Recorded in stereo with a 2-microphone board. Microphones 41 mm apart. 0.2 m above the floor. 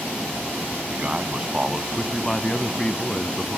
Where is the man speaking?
35° right (ahead or behind), 1.1 m; by 3.6 s 35° left (ahead or behind), 1.4 m.